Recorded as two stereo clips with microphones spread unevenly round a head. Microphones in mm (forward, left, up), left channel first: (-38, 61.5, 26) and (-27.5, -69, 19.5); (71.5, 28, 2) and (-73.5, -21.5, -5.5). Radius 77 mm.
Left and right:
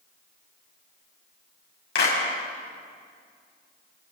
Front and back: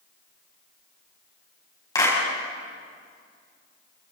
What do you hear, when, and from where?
1.9 s a clap: 85° left, 6 m